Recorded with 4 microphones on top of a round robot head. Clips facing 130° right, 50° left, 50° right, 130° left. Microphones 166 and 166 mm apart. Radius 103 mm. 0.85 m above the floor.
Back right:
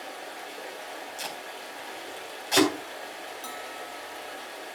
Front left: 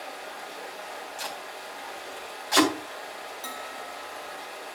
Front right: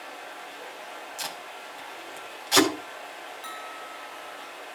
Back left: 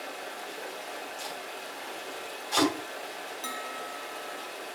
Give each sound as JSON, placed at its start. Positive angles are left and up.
{"t": 0.0, "sound": "running water", "azimuth_deg": 170, "distance_m": 3.0}
{"t": 1.2, "sound": "tape being pulled", "azimuth_deg": -65, "distance_m": 3.5}
{"t": 3.4, "sound": "a bell", "azimuth_deg": 140, "distance_m": 0.9}